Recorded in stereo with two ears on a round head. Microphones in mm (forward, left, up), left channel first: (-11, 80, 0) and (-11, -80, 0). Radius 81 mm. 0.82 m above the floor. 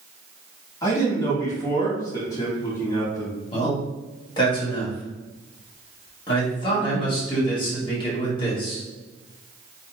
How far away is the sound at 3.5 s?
About 1.3 m.